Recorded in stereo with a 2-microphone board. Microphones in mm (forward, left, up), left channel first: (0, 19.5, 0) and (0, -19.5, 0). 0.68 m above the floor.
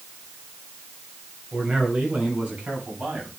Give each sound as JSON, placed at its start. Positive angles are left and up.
{"t": 1.5, "sound": "a man speaking", "side_deg": -30, "distance_m": 4.5}